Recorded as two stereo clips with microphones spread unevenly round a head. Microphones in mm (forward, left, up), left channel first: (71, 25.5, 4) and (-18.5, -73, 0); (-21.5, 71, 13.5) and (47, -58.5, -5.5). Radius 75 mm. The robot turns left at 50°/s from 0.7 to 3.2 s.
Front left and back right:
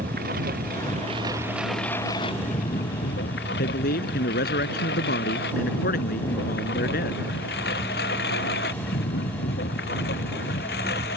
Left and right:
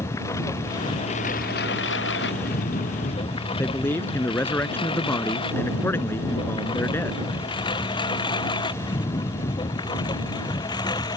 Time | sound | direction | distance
0.0 | a lawn mower | 170° right | ?
3.6 | a man speaking | 45° left | ?